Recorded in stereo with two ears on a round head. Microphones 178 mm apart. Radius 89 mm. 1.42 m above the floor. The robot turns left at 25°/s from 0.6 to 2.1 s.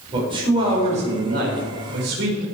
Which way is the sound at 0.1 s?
25° right.